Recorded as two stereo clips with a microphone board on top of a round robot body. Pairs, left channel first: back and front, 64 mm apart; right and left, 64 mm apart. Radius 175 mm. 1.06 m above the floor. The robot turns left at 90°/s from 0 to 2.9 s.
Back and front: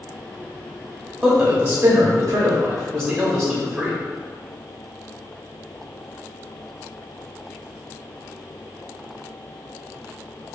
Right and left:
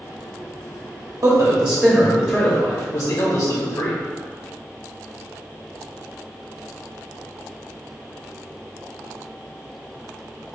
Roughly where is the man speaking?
Ahead left.